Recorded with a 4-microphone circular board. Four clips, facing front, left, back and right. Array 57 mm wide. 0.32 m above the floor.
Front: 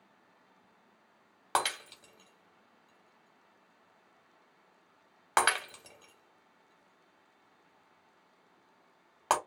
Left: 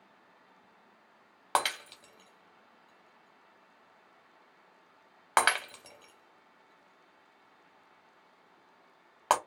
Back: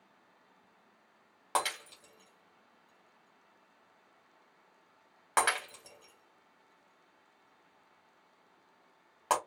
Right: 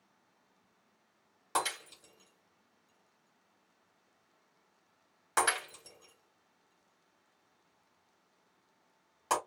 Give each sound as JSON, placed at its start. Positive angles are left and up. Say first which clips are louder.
{"t": 1.6, "sound": "breaking glass", "louder": "left 4 dB, front 2 dB", "azimuth_deg": 70, "distance_m": 1.0}